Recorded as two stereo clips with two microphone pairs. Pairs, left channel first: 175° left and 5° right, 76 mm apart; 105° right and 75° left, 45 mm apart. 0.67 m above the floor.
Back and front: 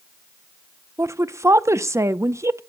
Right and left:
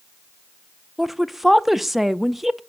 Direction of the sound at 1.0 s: 5° right.